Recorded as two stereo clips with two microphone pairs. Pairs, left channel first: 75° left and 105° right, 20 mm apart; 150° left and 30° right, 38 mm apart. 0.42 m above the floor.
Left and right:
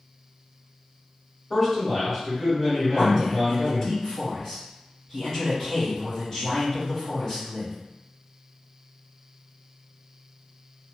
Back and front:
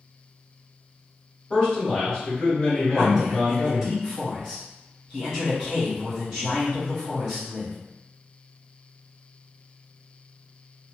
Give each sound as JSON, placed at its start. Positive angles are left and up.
{"t": 1.5, "sound": "a man speaking", "azimuth_deg": 175, "distance_m": 1.5}
{"t": 2.9, "sound": "a man speaking", "azimuth_deg": 35, "distance_m": 1.5}